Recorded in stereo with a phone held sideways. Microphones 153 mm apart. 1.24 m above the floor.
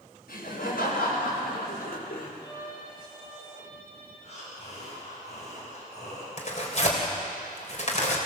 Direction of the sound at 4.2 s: 50° left (ahead or behind).